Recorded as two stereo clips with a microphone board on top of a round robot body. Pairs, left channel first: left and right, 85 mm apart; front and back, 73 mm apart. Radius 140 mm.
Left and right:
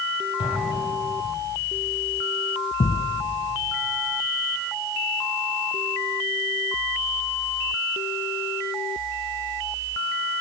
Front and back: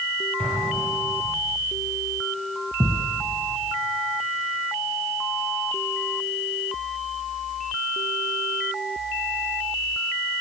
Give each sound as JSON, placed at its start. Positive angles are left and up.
{"t": 0.4, "sound": "an explosion", "azimuth_deg": 75, "distance_m": 7.0}
{"t": 2.8, "sound": "a thud", "azimuth_deg": 100, "distance_m": 2.0}